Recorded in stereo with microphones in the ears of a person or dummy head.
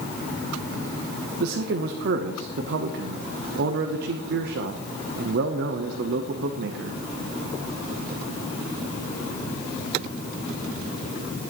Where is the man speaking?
55° right (ahead or behind), 0.7 m.